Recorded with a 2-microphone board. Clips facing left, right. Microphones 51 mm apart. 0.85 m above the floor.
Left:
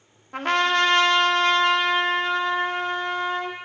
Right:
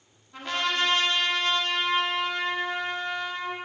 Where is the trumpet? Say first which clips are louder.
Left 7 dB; 60° left (ahead or behind), 1.2 m.